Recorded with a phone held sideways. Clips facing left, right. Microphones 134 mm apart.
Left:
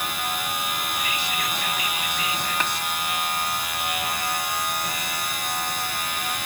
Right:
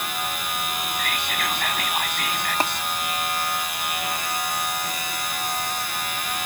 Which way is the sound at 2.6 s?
35° right (ahead or behind).